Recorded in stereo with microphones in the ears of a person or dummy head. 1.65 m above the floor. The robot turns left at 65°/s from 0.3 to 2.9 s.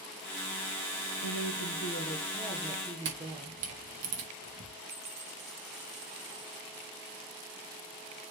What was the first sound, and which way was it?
A woman speaking, 90° left.